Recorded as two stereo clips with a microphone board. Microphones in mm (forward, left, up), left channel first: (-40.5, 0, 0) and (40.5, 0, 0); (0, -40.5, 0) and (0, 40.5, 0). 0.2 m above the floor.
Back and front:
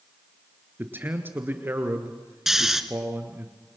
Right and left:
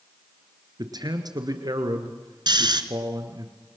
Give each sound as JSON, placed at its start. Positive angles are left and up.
{"t": 0.8, "sound": "a man speaking", "azimuth_deg": 65, "distance_m": 2.5}
{"t": 2.5, "sound": "snoring", "azimuth_deg": 85, "distance_m": 1.3}